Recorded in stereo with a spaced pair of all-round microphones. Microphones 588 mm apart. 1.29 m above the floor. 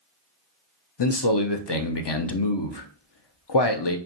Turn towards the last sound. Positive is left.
turn(degrees=45)  # may be behind; listen again after turning